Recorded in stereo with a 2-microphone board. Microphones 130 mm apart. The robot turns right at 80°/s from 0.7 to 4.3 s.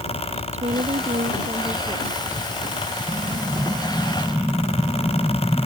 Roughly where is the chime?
No chime in this recording.